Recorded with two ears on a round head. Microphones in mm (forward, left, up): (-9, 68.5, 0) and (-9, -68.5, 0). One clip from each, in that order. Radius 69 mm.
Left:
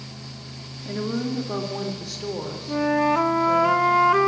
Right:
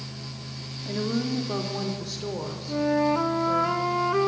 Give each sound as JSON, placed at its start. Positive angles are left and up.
{"t": 0.8, "sound": "a woman speaking", "side_deg": 0, "distance_m": 3.0}
{"t": 2.7, "sound": "a flute", "side_deg": 35, "distance_m": 0.8}